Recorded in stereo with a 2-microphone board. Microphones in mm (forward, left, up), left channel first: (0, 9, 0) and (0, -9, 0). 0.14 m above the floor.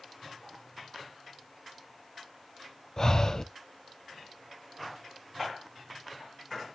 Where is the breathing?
30° left (ahead or behind), 0.6 m.